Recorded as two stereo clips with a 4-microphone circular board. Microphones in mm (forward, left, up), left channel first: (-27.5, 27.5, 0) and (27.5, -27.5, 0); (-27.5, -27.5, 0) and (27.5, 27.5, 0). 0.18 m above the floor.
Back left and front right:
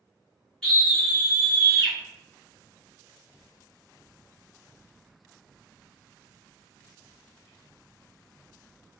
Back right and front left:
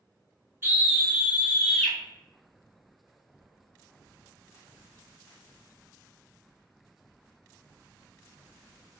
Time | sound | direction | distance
0.6 | a scream | 65° left | 1.3 m